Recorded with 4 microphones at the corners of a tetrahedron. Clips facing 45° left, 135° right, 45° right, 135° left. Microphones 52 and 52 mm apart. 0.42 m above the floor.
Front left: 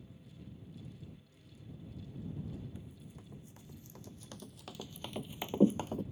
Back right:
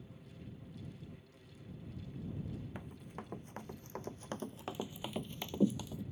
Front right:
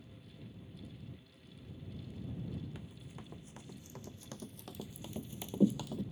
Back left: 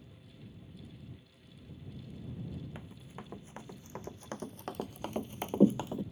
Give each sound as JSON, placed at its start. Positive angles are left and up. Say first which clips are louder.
{"t": 2.8, "sound": "running footsteps", "louder": "back right 4 dB, back left 3 dB", "azimuth_deg": -165}